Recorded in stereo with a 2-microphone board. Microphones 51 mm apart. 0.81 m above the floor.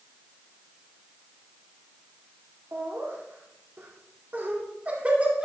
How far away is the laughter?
About 2 m.